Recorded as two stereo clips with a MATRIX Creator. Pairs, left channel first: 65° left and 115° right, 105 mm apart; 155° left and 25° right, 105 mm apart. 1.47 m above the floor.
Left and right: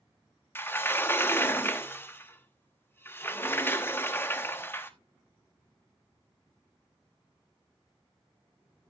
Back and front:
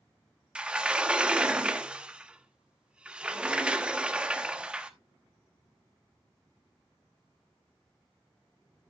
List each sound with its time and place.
0.6 s a sliding door: 45° left, 0.9 m